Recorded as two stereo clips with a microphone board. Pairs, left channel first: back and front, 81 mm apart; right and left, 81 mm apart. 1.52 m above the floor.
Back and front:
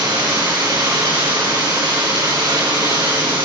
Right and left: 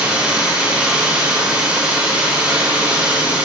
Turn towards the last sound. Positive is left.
turn(degrees=15)